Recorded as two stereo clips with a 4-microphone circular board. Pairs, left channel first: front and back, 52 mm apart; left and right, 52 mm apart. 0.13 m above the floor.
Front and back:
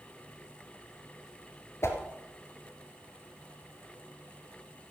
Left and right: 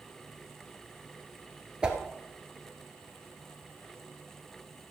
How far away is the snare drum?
No snare drum in this recording.